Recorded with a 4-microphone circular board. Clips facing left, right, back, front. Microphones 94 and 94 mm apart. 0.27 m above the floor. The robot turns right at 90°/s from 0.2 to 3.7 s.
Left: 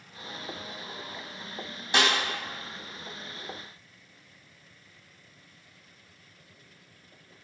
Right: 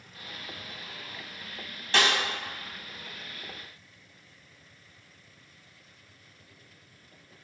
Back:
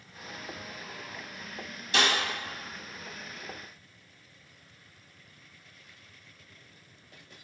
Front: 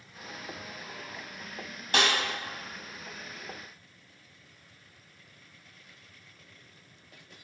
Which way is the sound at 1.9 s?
20° left.